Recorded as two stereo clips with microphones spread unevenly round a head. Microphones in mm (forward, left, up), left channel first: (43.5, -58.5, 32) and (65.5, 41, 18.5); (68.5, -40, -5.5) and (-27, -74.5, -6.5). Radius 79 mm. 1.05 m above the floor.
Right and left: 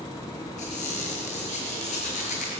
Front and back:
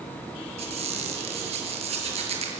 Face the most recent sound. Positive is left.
turn(degrees=-145)